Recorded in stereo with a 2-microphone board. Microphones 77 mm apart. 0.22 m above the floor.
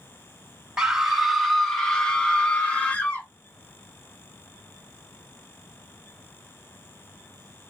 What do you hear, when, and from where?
0.8 s a scream: 5° right (ahead or behind), 1.2 m; by 3.3 s 20° left (ahead or behind), 2 m